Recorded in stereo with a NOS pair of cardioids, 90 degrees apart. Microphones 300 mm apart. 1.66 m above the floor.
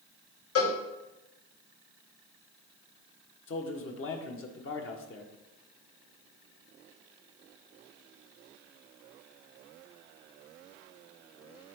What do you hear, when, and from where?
0.6 s a cowbell: 50° left, 3 m
3.5 s a man speaking: 45° left, 1.9 m